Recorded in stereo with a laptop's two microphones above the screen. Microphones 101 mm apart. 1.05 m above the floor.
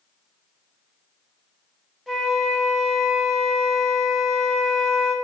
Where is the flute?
Centre (ahead or behind), 0.8 m.